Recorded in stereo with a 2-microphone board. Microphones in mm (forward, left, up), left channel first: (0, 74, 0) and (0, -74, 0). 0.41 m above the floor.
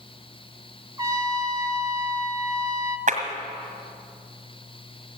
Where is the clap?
55° right (ahead or behind), 1.9 m.